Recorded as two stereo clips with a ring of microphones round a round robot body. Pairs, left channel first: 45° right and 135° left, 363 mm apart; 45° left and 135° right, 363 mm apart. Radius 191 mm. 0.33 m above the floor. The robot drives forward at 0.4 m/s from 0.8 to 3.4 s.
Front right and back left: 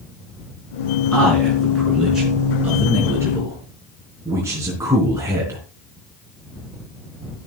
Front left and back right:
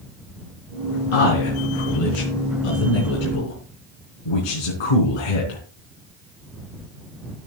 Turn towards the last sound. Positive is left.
turn(degrees=50)